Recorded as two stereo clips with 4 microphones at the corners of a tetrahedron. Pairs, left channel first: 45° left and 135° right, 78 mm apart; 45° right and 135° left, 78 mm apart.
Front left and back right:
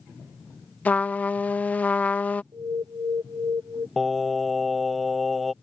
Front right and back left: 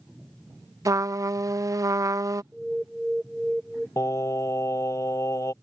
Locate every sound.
0.8 s a trumpet: 110° left
2.5 s an alarm: 140° right
4.0 s singing: 45° right